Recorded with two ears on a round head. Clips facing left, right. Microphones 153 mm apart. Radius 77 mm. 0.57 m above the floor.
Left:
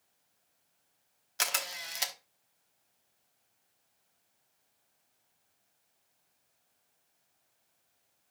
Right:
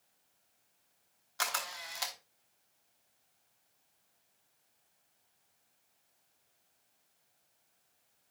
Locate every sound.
1.4 s a camera shutter: 25° left (ahead or behind), 1.1 m